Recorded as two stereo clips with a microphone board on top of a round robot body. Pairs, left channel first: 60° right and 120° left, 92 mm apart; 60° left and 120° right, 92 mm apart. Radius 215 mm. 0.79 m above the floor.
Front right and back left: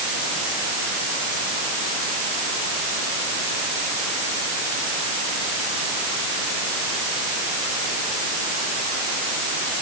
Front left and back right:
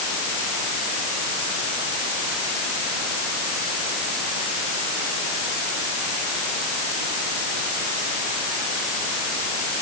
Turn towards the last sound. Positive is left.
No sound to turn to.